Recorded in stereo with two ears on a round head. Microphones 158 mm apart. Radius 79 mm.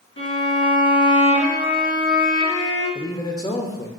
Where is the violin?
75° left (ahead or behind), 1.6 m.